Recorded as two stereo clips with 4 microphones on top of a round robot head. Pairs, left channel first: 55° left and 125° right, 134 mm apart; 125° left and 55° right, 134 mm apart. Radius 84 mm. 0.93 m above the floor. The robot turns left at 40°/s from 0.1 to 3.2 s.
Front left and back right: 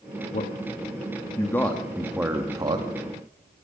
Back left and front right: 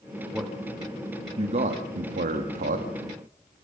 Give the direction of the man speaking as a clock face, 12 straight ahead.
11 o'clock.